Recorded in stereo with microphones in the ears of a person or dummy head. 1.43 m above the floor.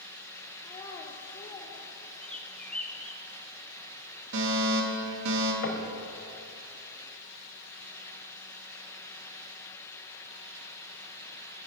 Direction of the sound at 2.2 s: 5° left (ahead or behind).